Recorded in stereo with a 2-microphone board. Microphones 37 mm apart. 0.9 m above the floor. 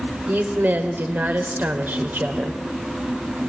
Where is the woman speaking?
60° right (ahead or behind), 3.5 m.